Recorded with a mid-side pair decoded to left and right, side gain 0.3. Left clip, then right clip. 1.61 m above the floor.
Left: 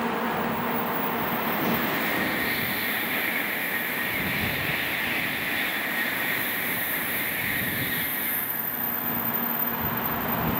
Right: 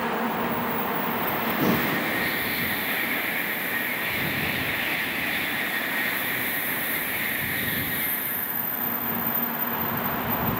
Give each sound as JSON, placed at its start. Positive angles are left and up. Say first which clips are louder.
{"t": 1.6, "sound": "breathing", "louder": "right 2 dB", "azimuth_deg": -55}